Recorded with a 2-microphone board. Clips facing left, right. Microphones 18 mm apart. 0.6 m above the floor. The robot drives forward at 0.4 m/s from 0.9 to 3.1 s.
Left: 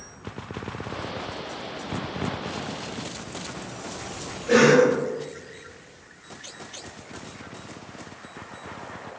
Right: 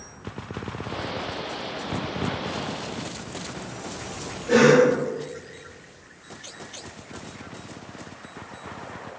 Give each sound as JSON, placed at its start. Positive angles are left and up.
{"t": 4.5, "sound": "a cough", "side_deg": 0, "distance_m": 1.6}